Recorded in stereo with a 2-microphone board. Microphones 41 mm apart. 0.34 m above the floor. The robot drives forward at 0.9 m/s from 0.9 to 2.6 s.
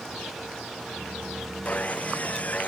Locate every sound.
1.6 s sawing: 35° left (ahead or behind); by 2.7 s 40° left (ahead or behind)